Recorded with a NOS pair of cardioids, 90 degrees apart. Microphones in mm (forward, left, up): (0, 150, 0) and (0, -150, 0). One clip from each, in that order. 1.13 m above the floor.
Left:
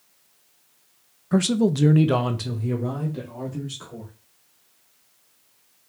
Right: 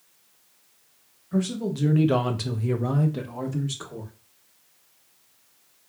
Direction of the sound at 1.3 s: 65° left.